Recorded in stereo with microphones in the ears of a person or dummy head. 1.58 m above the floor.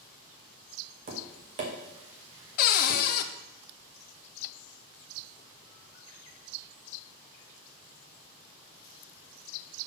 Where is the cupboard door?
55° left (ahead or behind), 0.5 m.